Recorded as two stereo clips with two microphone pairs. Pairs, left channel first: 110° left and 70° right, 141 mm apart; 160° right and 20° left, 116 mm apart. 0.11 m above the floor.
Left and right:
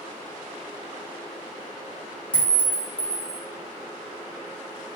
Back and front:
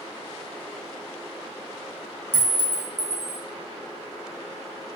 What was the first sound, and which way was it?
A clink, 175° left.